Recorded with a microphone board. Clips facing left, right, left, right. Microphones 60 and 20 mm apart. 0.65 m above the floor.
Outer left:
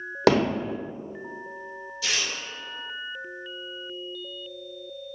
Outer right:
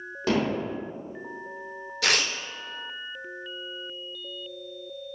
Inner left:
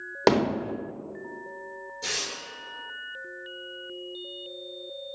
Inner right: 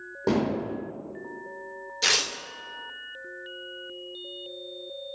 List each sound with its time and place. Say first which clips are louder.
0.3 s hammering: outer left 5 dB, inner left 3 dB; 75° left (ahead or behind), 0.9 m
2.0 s tearing paper: outer right 5 dB, inner right 7 dB; 60° right (ahead or behind), 0.6 m